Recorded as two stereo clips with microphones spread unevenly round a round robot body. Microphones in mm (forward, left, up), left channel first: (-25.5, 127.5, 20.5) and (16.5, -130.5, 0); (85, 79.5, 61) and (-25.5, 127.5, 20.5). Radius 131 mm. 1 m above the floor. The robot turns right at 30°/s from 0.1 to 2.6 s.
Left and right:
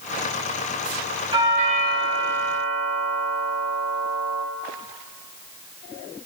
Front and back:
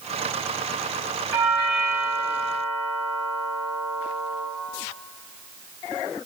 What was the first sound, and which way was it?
A doorbell, 150° right.